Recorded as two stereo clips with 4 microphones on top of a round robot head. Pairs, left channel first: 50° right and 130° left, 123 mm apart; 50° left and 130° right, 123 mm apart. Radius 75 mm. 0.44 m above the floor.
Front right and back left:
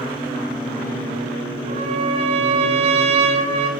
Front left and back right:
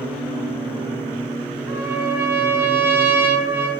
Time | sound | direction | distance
1.7 | a trumpet | 160° left | 2 m